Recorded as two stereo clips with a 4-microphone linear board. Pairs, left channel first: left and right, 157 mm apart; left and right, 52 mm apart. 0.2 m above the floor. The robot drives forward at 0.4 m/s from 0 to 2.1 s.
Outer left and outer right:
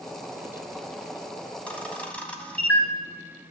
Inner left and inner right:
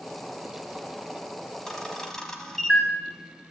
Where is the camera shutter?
10° left (ahead or behind), 1.3 m.